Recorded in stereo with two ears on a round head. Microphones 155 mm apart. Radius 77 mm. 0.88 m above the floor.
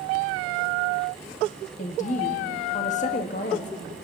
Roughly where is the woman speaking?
Left.